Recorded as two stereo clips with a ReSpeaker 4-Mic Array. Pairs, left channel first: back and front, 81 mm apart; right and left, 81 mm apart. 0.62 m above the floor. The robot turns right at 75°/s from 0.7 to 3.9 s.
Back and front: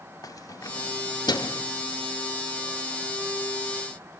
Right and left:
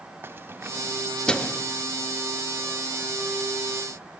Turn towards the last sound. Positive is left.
turn(degrees=30)